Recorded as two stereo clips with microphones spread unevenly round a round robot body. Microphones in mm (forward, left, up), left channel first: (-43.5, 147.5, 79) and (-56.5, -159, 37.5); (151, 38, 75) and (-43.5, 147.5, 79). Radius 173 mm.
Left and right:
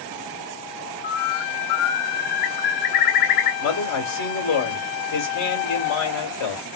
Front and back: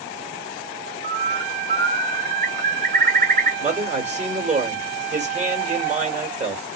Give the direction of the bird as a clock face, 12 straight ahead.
9 o'clock.